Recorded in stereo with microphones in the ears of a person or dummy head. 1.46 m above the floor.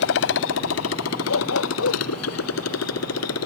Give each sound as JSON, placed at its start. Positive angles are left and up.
{"t": 0.0, "sound": "a motorcycle", "side_deg": 65}
{"t": 1.3, "sound": "a dog barking", "side_deg": 80}